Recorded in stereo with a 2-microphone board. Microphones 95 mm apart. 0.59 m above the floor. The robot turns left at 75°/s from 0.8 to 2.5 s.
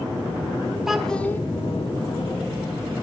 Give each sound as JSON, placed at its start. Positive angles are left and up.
{"t": 0.9, "sound": "a child speaking", "azimuth_deg": -170, "distance_m": 0.7}